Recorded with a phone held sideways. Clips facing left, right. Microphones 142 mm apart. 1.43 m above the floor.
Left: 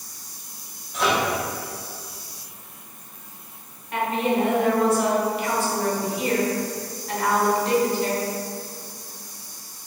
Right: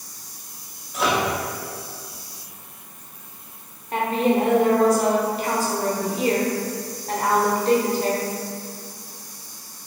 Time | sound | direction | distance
0.9 | a microwave | 5° right (ahead or behind) | 1.0 m
3.9 | a woman speaking | 35° right (ahead or behind) | 0.9 m